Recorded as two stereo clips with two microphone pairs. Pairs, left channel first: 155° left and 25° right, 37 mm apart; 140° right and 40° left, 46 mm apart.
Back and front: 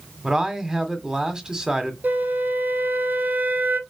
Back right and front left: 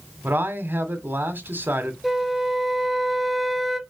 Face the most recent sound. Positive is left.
turn(degrees=-50)